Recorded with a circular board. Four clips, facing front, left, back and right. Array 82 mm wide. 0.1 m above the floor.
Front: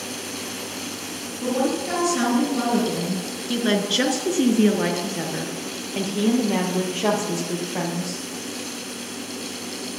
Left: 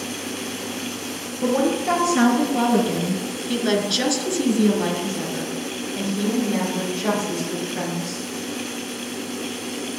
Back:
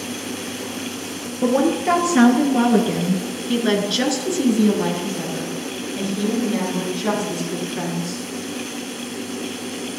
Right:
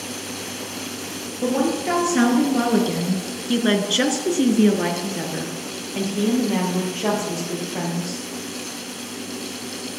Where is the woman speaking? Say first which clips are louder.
Left 1 dB, back 6 dB; 175° right, 2.5 m; by 8.2 s 20° right, 4.5 m.